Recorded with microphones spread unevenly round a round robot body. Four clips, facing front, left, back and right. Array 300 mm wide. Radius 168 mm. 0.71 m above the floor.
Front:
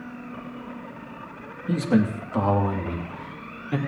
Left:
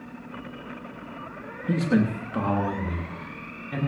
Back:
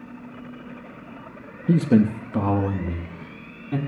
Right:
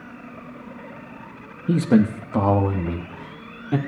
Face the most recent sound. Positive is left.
turn(degrees=-110)